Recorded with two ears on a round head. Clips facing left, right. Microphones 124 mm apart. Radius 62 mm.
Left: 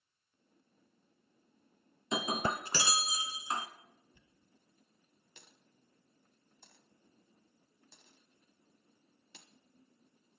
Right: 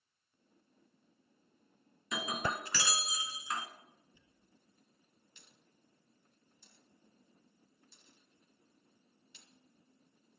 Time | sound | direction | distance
2.1 | breaking glass | 25° left (ahead or behind) | 1.2 m
4.1 | a dropped coin | 50° left (ahead or behind) | 1.4 m